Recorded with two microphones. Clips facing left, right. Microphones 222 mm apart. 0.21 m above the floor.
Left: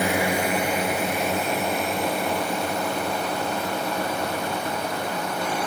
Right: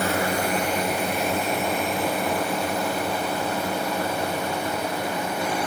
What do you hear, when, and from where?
0.0 s a drone: 15° left (ahead or behind); by 5.7 s 10° right (ahead or behind)